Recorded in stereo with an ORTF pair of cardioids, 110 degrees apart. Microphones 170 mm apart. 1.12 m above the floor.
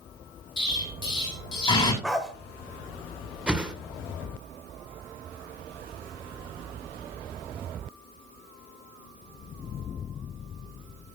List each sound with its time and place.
0.6 s an explosion: 25° left, 6 m
2.0 s a dog barking: straight ahead, 1.9 m
3.5 s a whoosh: 5° right, 1.8 m